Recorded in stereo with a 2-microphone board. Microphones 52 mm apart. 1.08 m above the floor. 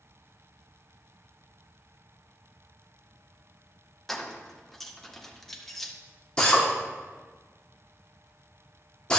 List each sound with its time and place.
4.1 s keys jangling: 5° left (ahead or behind), 0.8 m
6.4 s a drill: 20° left (ahead or behind), 1.6 m